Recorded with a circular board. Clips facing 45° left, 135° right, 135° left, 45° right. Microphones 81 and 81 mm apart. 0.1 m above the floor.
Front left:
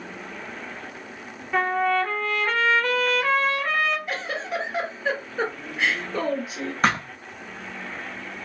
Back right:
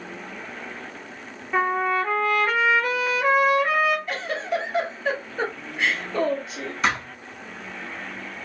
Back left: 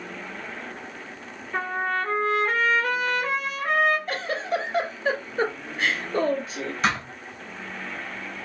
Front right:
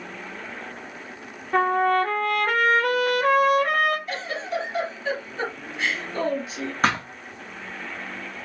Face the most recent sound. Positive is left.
turn(degrees=0)